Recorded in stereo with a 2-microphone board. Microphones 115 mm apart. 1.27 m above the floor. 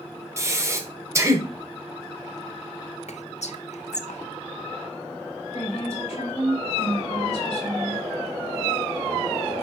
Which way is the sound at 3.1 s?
80° left.